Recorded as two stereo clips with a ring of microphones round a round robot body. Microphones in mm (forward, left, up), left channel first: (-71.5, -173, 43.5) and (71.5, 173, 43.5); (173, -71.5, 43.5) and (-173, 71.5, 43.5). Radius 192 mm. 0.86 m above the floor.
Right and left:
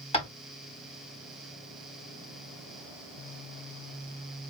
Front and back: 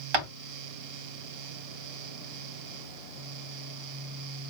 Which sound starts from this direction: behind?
Tapping, at 0.1 s.